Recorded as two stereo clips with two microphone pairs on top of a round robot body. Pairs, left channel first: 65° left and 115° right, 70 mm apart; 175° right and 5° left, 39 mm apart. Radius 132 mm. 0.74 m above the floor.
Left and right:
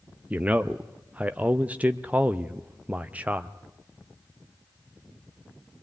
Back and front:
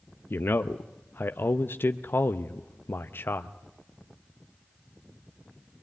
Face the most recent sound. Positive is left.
turn(degrees=-165)